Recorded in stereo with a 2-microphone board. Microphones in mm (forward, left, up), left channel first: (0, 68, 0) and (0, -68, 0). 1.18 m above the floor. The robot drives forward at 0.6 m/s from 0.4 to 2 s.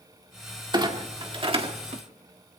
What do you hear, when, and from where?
0.7 s a clunk: 35° right (ahead or behind), 2.0 m; by 2.0 s 50° right (ahead or behind), 1.4 m